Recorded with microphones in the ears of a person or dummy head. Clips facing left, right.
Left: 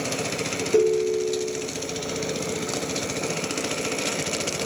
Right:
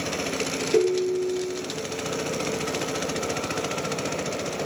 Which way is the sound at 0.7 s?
5° right (ahead or behind).